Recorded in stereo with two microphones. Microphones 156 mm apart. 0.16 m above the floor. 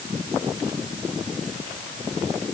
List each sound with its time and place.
Only background noise.